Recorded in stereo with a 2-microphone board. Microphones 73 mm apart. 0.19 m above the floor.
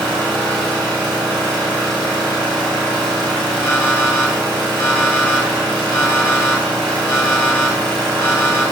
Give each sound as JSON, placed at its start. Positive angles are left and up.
{"t": 0.0, "sound": "an engine running", "side_deg": 20, "distance_m": 1.0}
{"t": 3.6, "sound": "an alarm clock", "side_deg": 45, "distance_m": 1.2}